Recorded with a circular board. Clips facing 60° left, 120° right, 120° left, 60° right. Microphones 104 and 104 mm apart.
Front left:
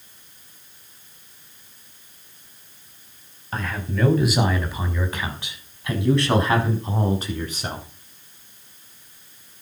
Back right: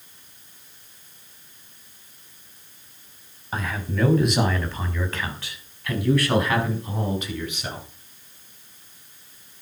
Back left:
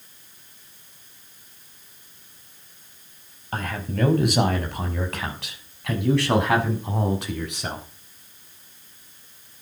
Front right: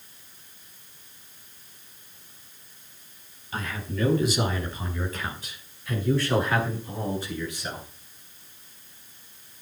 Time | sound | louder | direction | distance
3.5 | a man speaking | even, back left 4 dB | 155° left | 5 m